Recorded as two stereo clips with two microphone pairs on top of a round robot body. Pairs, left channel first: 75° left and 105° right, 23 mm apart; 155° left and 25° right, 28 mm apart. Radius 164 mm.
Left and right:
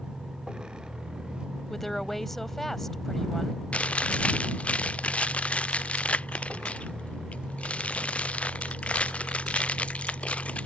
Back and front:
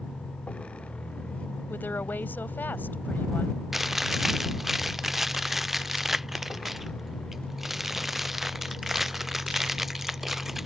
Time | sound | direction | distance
0.0 | a vehicle | 160° right | ?
1.7 | a woman speaking | 150° left | ?
3.7 | chewing | 50° left | ?